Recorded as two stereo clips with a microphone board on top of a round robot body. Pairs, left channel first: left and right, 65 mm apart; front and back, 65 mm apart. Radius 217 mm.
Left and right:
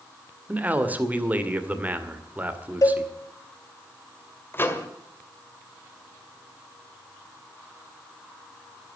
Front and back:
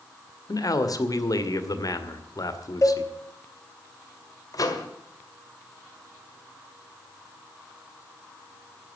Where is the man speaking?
25° right, 2 m.